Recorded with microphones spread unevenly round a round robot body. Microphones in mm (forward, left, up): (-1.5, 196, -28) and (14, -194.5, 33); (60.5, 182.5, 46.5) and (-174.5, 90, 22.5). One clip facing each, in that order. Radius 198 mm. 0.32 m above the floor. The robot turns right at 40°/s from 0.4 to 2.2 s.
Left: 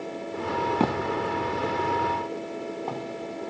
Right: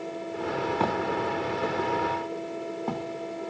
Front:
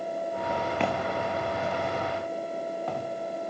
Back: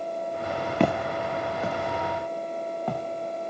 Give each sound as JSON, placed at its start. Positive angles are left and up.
{"t": 0.8, "sound": "footsteps", "azimuth_deg": 150, "distance_m": 0.7}